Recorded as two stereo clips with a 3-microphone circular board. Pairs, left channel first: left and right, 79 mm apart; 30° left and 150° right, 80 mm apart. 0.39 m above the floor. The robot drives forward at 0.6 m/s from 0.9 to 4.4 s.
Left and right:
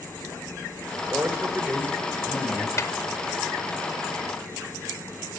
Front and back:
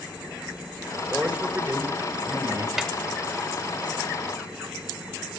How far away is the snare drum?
About 0.7 m.